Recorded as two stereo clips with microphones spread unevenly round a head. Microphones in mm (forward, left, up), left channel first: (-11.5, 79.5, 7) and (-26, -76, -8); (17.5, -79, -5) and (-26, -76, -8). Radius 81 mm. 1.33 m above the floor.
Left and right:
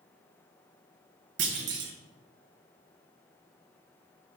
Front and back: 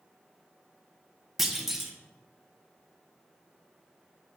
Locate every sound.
1.4 s a clunk: 100° right, 1.0 m